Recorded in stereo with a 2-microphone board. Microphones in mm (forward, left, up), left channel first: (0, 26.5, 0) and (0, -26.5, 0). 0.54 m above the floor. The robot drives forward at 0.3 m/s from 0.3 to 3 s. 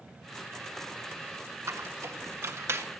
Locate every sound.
1.7 s a squeak: 65° right (ahead or behind), 1.4 m; by 2.9 s 55° right (ahead or behind), 1.6 m